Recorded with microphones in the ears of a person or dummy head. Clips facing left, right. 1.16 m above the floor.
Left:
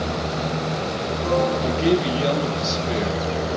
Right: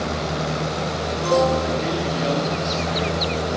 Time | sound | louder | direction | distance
1.6 | a man speaking | left 4 dB | 50° left (ahead or behind) | 9.5 m